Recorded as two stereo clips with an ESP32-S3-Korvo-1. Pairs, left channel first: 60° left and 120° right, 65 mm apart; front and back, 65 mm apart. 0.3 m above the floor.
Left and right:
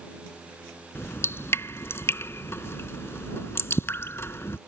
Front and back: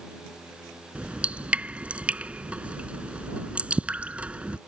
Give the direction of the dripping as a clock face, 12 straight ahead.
8 o'clock.